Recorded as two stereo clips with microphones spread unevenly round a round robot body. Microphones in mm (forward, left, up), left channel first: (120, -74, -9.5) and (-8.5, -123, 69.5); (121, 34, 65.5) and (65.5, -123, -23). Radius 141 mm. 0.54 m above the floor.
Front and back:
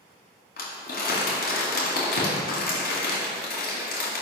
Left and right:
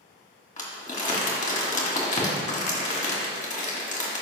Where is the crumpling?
25° left, 1.9 m.